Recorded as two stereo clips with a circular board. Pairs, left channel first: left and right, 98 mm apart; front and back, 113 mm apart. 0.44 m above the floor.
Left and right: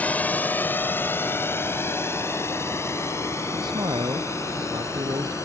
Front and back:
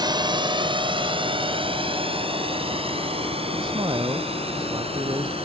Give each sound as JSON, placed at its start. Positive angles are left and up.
{"t": 0.0, "sound": "a drone", "azimuth_deg": 160}
{"t": 3.5, "sound": "a man speaking", "azimuth_deg": -130}